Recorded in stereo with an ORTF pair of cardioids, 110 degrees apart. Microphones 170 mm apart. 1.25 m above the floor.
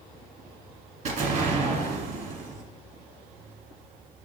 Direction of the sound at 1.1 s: 50° right.